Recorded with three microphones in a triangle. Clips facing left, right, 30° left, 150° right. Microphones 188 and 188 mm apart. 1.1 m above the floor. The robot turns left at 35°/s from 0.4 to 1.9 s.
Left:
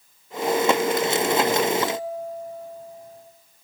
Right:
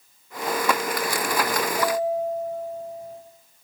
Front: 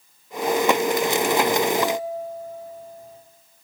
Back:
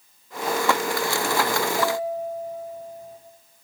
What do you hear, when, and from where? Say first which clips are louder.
1.8 s a bell: right 3 dB, even; 70° right, 4.5 m; by 3.2 s 75° right, 4.5 m